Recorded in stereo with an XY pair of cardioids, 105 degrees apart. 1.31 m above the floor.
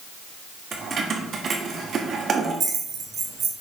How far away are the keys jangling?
About 1.5 m.